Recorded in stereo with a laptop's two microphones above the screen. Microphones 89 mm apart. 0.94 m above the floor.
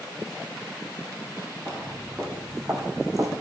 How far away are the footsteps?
About 4 m.